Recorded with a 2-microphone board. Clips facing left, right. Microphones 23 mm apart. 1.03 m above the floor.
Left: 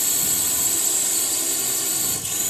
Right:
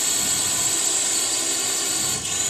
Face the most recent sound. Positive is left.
turn(degrees=-15)  # may be behind; listen again after turning